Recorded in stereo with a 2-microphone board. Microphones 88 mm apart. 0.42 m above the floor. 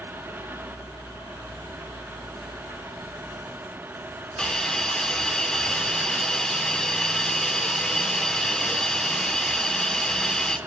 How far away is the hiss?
About 1.1 m.